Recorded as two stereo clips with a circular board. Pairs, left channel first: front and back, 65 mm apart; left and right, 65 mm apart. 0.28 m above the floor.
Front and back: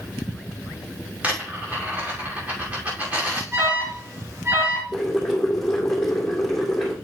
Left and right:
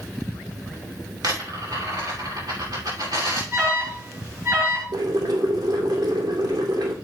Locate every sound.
1.2 s a dropped coin: 115° right, 6 m
3.5 s an alarm: 140° right, 6.5 m
4.9 s boiling: 85° right, 2.5 m